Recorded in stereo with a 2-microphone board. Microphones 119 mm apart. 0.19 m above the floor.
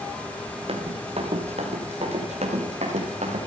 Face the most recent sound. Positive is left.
turn(degrees=-70)  # may be behind; listen again after turning